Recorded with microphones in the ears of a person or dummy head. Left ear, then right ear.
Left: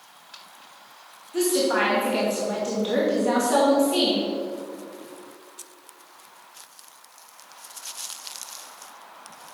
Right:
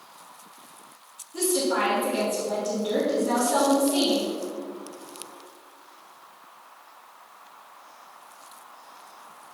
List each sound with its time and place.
1.3 s a woman speaking: 35° left (ahead or behind), 2.5 m